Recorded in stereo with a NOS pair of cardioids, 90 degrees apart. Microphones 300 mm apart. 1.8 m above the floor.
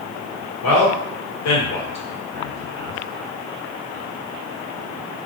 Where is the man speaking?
65° left, 1.2 m.